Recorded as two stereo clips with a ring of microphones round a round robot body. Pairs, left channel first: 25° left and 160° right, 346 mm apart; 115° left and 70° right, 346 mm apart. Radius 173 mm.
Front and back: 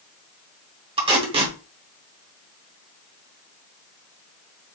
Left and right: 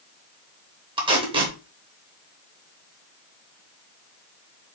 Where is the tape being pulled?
115° right, 0.9 m.